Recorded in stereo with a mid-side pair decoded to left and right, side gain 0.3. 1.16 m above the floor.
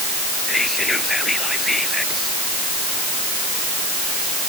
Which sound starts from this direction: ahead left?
Whispering, at 0.5 s.